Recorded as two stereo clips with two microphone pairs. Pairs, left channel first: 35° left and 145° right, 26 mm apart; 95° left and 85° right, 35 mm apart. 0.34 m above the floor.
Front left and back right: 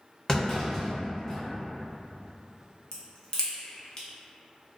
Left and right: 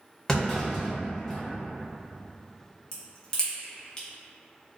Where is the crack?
45° left, 0.7 m.